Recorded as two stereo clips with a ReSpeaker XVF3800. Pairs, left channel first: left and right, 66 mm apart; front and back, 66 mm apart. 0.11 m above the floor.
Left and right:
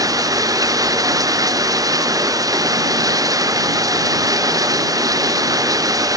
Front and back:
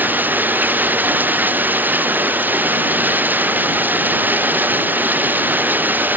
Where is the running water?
115° right.